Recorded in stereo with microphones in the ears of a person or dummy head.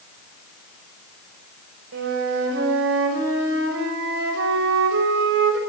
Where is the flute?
75° right (ahead or behind), 6.5 m.